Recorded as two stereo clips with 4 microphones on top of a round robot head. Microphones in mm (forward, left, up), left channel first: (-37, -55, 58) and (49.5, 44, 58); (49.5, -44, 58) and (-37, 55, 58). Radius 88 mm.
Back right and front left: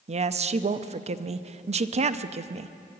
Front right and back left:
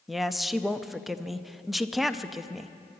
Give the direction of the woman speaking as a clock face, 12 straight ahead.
11 o'clock.